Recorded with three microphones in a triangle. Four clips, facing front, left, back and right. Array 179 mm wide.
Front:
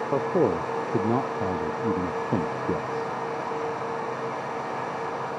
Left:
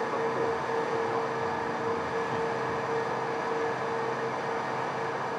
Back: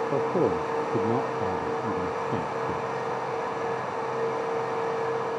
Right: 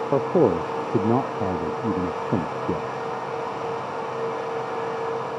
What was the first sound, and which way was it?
A man speaking, 80° right.